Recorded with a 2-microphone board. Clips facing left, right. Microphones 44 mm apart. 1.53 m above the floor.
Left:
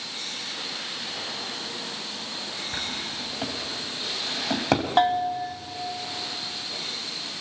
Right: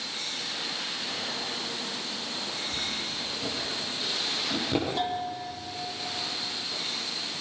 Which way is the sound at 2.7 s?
80° left.